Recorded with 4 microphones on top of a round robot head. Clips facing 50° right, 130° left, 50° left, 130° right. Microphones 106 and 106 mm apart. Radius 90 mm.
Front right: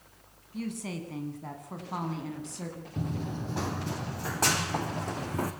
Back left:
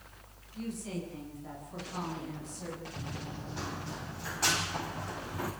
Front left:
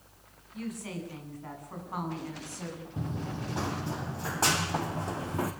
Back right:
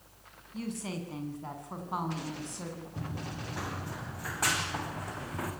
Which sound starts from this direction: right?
A woman speaking, at 0.5 s.